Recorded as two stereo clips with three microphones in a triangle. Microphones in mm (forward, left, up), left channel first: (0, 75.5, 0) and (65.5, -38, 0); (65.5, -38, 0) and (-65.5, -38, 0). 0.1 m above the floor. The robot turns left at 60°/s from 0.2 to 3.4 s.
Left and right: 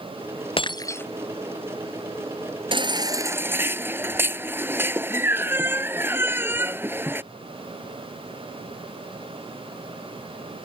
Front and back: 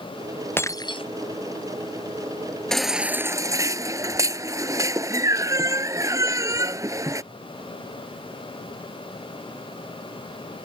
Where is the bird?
No bird in this recording.